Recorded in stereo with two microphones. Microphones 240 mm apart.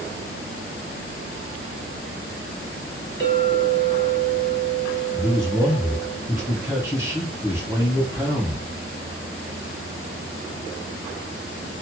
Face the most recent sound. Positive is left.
turn(degrees=-10)  # may be behind; listen again after turning